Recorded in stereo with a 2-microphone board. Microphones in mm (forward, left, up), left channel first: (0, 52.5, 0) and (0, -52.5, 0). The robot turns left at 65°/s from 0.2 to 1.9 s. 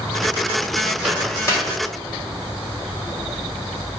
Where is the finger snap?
No finger snap in this recording.